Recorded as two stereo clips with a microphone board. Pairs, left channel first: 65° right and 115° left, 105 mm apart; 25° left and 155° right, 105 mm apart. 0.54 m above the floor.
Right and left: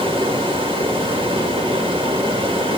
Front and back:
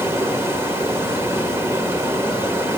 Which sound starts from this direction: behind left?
Running water, at 0.0 s.